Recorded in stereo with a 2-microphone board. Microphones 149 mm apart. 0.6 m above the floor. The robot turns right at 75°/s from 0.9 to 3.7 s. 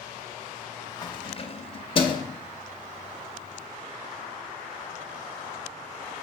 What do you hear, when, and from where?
1.0 s keys jangling: 25° left (ahead or behind), 0.6 m